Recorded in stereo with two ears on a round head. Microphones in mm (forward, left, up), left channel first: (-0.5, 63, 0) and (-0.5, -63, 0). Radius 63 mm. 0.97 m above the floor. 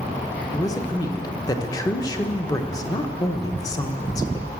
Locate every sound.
0.5 s a man speaking: 25° left (ahead or behind), 0.8 m